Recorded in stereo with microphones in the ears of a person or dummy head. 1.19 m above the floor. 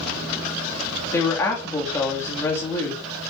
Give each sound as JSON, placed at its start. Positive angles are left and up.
{"t": 1.1, "sound": "a woman speaking", "side_deg": 15, "distance_m": 2.0}